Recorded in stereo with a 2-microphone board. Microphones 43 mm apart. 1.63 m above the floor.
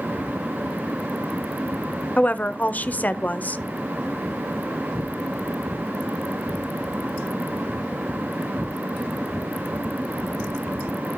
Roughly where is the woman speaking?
Left.